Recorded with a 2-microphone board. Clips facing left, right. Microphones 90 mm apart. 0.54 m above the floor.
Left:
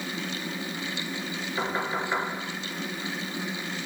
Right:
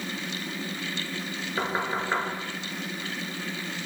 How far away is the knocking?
About 4.5 m.